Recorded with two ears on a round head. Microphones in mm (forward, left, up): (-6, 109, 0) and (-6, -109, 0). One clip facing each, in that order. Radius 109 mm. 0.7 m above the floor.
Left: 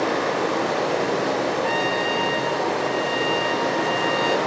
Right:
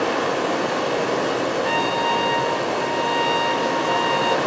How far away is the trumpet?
About 0.6 m.